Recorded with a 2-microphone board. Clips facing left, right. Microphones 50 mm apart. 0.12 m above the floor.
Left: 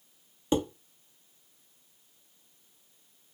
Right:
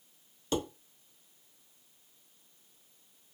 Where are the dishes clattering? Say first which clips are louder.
Left 5 dB; 25° left (ahead or behind), 0.9 m.